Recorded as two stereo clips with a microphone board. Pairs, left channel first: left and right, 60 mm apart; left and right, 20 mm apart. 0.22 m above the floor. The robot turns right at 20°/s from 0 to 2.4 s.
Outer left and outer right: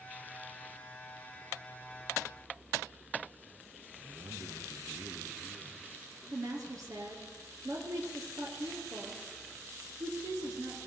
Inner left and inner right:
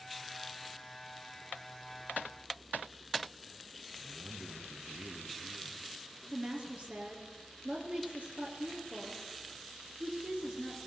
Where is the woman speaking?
70° right (ahead or behind), 5 m.